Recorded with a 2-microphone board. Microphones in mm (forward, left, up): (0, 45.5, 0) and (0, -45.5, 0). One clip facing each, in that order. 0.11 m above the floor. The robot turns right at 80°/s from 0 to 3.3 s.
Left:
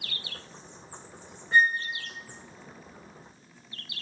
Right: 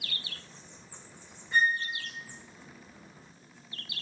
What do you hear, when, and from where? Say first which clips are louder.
1.5 s a flute: left 4 dB; 55° left (ahead or behind), 3 m; by 1.8 s 30° left (ahead or behind), 3 m